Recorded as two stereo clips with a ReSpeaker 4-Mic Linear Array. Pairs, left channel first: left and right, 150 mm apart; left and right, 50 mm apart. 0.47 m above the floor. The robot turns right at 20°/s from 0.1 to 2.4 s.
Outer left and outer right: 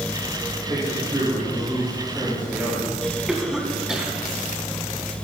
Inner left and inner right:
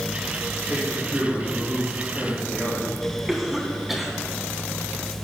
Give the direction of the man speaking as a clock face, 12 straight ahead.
1 o'clock.